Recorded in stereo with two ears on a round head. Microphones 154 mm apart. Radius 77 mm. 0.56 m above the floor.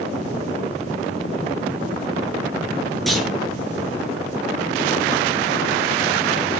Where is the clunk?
Centre (ahead or behind), 7.5 m.